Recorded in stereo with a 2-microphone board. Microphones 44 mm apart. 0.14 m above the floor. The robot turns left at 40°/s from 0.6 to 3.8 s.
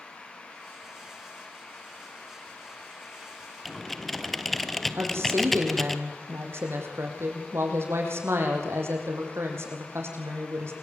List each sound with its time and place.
3.6 s typing on a keyboard: centre (ahead or behind), 1.3 m; by 6.0 s 5° left (ahead or behind), 1.3 m
5.0 s a woman speaking: 75° right (ahead or behind), 7 m